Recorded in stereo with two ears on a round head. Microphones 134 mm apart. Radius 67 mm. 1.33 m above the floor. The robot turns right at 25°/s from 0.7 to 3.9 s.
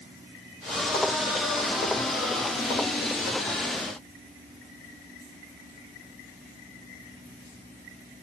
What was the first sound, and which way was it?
Only background noise.